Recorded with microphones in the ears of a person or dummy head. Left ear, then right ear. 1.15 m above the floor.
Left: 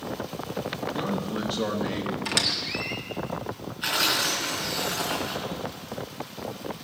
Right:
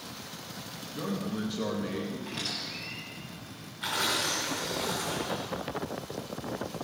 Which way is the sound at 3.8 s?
10° left (ahead or behind).